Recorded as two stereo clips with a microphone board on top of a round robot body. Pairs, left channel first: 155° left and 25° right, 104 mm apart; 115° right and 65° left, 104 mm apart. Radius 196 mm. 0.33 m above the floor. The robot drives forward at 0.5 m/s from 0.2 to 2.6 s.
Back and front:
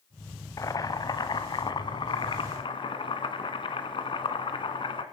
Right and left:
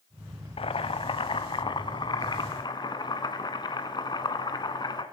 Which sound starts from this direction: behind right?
Boiling, at 0.6 s.